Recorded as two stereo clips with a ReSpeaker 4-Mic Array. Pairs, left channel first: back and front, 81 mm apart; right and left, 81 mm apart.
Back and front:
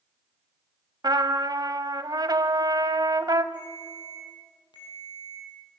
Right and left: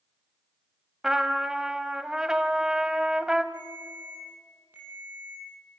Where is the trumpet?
10° left, 1.0 m.